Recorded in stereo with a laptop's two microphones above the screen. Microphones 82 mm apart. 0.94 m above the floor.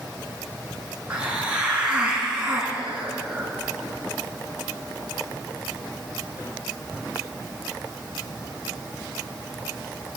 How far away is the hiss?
About 3.5 m.